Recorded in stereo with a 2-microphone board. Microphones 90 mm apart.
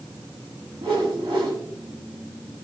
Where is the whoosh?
70° right (ahead or behind), 3.5 m.